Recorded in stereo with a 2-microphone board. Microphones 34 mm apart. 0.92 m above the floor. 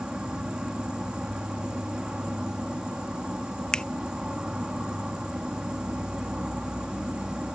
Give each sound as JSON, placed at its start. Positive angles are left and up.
{"t": 0.0, "sound": "an insect", "side_deg": -25}
{"t": 3.7, "sound": "a finger snap", "side_deg": 25}